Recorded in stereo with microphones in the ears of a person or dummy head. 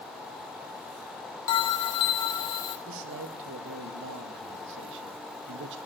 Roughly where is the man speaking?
Right.